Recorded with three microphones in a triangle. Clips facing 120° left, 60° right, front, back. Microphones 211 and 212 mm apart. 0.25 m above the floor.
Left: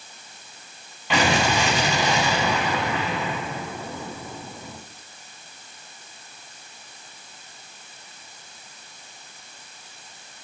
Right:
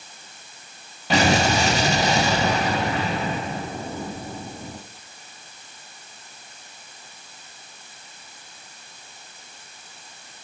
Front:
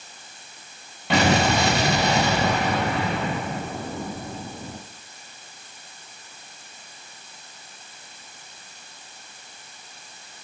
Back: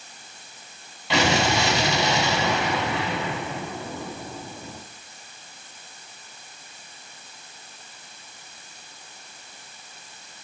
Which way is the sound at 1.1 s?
15° right.